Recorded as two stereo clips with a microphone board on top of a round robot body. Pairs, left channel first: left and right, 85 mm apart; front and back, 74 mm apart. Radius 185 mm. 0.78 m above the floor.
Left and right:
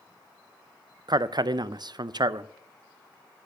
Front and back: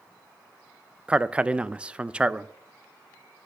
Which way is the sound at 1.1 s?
105° right.